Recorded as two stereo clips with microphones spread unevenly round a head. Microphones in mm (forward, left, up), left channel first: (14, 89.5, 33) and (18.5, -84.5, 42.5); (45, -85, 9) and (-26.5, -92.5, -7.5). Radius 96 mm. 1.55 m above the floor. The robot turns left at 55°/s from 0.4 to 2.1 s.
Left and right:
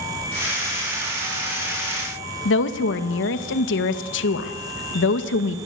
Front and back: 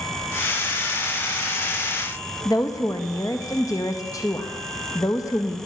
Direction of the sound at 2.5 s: 75° left.